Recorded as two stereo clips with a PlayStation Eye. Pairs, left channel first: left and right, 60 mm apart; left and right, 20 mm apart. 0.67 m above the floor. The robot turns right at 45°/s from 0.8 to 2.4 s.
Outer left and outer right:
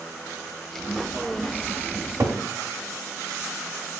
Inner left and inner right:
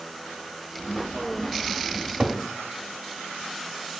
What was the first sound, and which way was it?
A cupboard door, 55° right (ahead or behind).